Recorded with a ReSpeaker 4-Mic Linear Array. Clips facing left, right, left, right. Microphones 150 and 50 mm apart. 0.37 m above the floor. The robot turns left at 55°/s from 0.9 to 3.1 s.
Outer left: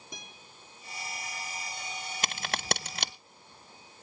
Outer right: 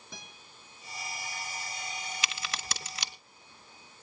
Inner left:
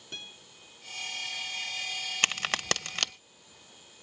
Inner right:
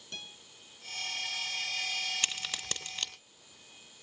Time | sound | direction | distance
0.1 | a guitar | 15° left (ahead or behind) | 3 m
2.2 | a crack | 50° left (ahead or behind) | 0.7 m